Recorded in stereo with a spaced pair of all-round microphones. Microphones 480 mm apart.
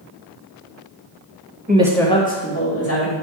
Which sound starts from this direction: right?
A woman speaking, at 1.7 s.